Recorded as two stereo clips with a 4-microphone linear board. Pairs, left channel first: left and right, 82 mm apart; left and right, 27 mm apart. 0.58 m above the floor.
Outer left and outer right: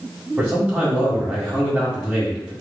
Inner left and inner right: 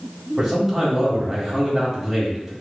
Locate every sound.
0.4 s a man speaking: 20° right (ahead or behind), 1.8 m